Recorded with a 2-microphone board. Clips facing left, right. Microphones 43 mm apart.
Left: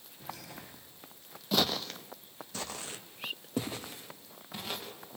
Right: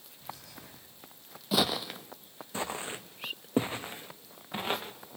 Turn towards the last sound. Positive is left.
turn(degrees=-35)  # may be behind; listen again after turning